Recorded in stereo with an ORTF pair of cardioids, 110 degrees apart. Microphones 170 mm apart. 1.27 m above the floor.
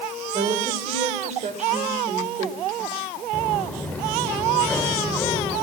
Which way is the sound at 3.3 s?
10° left.